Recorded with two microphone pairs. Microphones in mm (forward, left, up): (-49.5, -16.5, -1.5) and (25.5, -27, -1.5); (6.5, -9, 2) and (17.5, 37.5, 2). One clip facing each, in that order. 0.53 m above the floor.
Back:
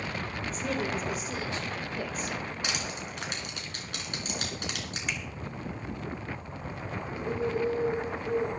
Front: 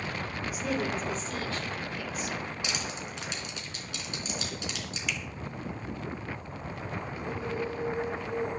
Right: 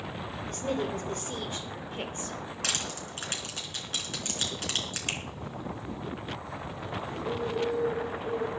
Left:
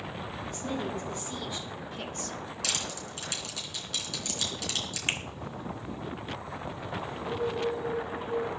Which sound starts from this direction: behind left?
A finger snap, at 5.1 s.